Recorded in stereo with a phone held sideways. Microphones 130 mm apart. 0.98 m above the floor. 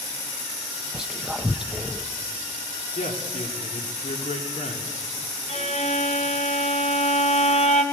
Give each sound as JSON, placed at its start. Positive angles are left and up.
{"t": 0.9, "sound": "whispering", "side_deg": -5, "distance_m": 0.5}
{"t": 3.0, "sound": "a man speaking", "side_deg": 70, "distance_m": 2.0}
{"t": 5.5, "sound": "a violin", "side_deg": 60, "distance_m": 1.2}